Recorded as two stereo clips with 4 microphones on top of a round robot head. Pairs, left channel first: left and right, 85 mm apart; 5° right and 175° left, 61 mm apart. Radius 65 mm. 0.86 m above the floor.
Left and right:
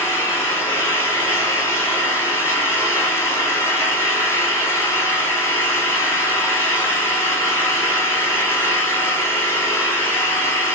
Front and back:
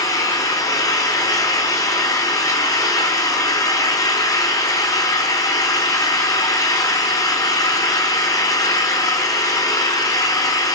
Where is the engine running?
25° left, 6 m.